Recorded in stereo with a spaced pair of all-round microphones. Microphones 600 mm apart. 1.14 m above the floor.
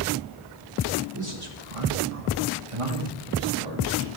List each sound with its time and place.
1.1 s a man speaking: 25° right (ahead or behind), 1.5 m; by 4.2 s 40° right (ahead or behind), 4 m